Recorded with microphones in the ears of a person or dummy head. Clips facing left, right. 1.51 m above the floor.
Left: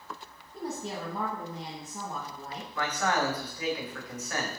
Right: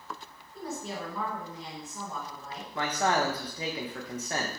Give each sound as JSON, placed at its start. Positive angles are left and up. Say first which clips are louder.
{"t": 0.5, "sound": "a woman speaking", "louder": "left 1 dB", "side_deg": 25, "distance_m": 0.9}
{"t": 2.8, "sound": "a man speaking", "louder": "right 2 dB", "side_deg": -30, "distance_m": 0.6}